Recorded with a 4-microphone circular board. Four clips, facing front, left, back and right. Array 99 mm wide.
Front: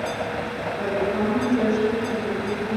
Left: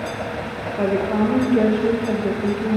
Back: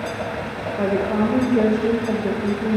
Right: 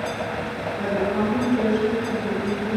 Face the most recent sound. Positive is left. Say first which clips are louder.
# left 4 dB, back 4 dB
turn(degrees=125)